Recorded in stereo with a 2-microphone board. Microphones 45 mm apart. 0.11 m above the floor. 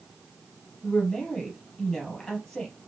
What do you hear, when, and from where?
0.8 s a woman speaking: 15° left (ahead or behind), 3 m